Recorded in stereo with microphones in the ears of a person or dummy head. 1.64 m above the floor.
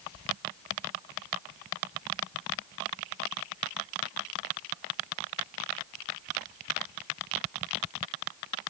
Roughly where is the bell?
I don't hear a bell.